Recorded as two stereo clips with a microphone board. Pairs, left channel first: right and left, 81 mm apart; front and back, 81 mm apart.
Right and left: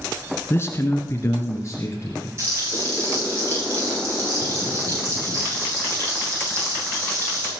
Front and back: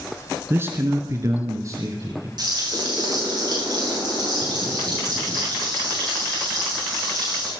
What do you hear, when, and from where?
0.5 s a man speaking: 130° right, 1.4 m; by 2.3 s 140° right, 3 m
2.4 s frying: 145° left, 8 m